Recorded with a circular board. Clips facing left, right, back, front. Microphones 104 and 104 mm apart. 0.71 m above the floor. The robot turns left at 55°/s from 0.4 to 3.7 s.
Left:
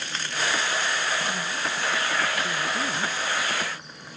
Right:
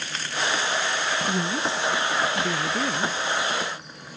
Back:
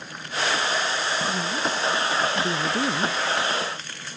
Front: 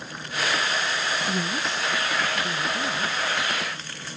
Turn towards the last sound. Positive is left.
turn(degrees=155)